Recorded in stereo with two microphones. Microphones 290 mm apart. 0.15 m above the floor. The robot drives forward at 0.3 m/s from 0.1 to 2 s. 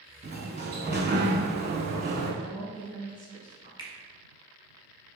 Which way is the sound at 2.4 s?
30° right (ahead or behind).